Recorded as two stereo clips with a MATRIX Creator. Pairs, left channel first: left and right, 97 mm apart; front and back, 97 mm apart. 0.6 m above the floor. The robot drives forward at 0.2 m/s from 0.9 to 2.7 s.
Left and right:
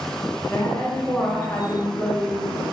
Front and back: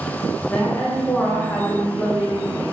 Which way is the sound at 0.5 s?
50° left.